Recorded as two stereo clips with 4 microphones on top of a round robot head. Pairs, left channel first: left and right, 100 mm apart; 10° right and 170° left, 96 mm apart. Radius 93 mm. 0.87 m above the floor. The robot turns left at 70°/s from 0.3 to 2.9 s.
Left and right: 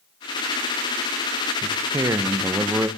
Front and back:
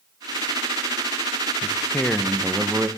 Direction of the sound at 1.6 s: 50° right.